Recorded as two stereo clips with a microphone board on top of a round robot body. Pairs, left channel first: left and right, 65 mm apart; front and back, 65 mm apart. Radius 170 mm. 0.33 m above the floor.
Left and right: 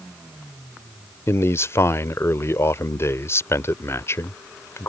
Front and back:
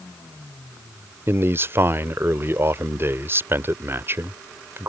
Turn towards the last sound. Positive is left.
turn(degrees=130)